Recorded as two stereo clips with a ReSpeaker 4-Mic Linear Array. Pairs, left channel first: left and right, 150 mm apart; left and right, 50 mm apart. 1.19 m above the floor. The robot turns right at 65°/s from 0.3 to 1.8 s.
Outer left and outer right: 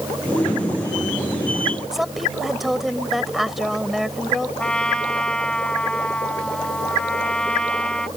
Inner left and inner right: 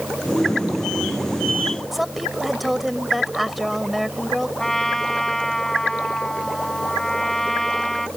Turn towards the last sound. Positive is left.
turn(degrees=5)  # may be behind; listen again after turning